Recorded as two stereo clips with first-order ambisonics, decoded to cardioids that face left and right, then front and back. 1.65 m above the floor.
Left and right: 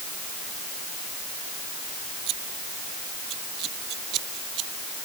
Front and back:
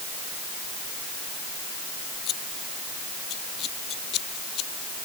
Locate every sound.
2.3 s scissors: 50° right